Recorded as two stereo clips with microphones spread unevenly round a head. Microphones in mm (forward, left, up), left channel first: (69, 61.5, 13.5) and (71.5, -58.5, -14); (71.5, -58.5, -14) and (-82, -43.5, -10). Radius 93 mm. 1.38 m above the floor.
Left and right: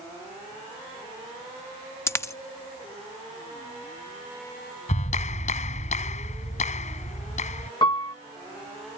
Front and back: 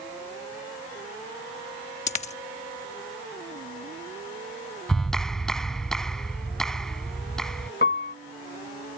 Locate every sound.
2.1 s a dropped coin: 40° left
4.9 s a clap: 80° left
7.8 s a piano: 40° left